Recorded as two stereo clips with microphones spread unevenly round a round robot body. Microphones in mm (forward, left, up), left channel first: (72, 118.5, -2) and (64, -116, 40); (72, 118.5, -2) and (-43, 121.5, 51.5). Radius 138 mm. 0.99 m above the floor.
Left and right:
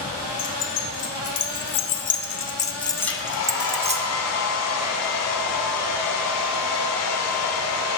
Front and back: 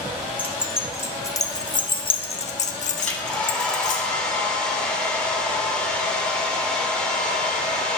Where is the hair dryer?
80° left, 1.7 m.